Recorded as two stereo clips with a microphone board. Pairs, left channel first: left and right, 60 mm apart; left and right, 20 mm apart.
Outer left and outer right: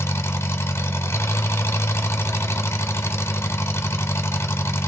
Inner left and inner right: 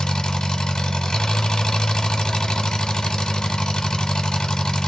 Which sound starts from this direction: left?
An engine running, at 0.0 s.